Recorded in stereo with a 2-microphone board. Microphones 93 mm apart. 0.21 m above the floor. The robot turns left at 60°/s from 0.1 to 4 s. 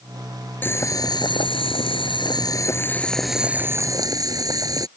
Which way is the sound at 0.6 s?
160° left.